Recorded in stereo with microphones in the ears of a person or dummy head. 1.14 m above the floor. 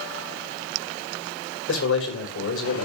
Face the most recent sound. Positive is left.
turn(degrees=80)